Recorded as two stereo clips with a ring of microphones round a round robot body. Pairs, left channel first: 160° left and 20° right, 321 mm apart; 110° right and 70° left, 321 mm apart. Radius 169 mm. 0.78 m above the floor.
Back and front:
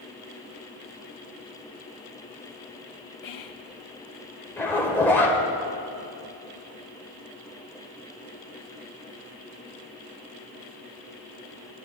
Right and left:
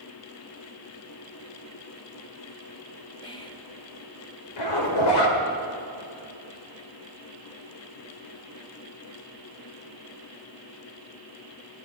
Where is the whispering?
170° left, 1.2 m.